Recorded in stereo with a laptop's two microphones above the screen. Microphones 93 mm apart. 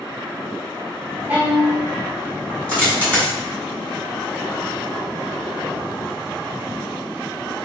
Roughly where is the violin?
Centre.